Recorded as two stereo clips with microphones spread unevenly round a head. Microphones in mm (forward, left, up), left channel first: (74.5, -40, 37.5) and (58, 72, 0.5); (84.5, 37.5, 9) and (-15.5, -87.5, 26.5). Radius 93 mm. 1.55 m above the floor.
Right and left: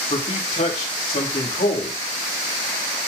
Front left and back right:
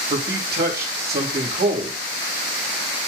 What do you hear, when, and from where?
0.1 s a man speaking: 105° right, 2.5 m